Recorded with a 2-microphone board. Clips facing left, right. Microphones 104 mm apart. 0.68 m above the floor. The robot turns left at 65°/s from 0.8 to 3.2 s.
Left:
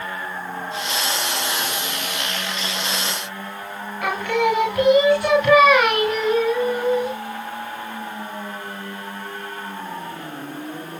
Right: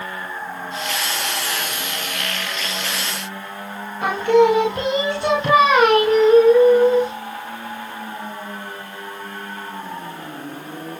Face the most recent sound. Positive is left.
turn(degrees=-25)  # may be behind; listen again after turning